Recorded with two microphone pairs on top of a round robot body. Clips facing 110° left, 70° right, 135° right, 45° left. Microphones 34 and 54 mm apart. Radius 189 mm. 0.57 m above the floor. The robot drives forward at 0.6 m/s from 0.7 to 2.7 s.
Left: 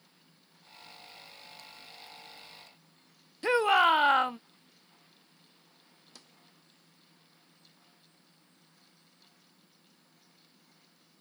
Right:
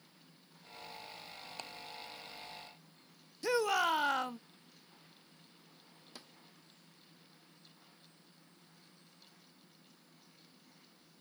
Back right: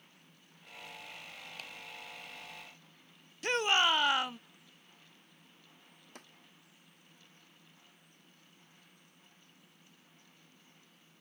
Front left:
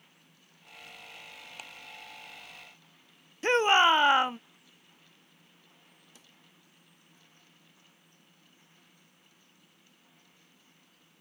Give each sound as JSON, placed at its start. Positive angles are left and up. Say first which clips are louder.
{"t": 1.6, "sound": "ticking", "louder": "right 8 dB, front left 2 dB", "azimuth_deg": -35}
{"t": 3.4, "sound": "a shout", "louder": "left 8 dB, front left 7 dB", "azimuth_deg": 85}
{"t": 6.2, "sound": "a snare drum", "louder": "right 3 dB, back right 9 dB", "azimuth_deg": -140}